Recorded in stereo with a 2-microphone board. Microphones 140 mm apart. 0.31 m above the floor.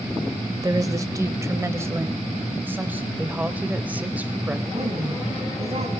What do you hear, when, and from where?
0.6 s a woman speaking: 25° right (ahead or behind), 0.9 m; by 3.1 s 15° right (ahead or behind), 1.6 m
3.2 s a woman speaking: 10° right (ahead or behind), 1.0 m
4.7 s a woman speaking: 50° right (ahead or behind), 3.5 m